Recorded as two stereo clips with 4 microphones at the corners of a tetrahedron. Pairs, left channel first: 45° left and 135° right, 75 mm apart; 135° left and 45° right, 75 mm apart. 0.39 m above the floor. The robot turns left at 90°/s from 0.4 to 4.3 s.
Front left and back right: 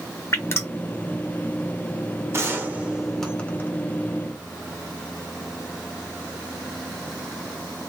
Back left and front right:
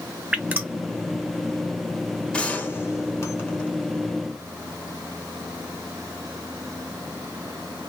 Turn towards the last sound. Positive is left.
turn(degrees=25)